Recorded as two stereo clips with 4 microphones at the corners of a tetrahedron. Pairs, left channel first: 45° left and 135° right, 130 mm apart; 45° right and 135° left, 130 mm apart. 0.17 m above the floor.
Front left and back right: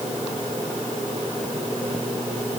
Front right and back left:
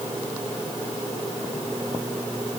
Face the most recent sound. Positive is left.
No sound to turn to.